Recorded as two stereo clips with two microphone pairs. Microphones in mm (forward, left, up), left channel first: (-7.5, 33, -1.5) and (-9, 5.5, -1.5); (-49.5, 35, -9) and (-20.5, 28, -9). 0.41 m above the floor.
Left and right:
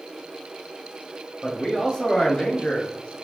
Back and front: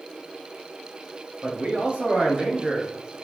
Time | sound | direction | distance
1.4 | a man speaking | 20° left | 1.8 m